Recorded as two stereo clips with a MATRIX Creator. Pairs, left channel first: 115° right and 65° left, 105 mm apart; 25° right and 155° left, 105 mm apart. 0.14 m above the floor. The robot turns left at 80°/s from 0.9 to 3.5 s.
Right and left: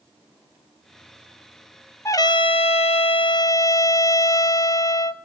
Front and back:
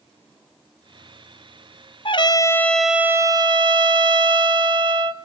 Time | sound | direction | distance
2.0 | a trumpet | 50° right | 0.8 m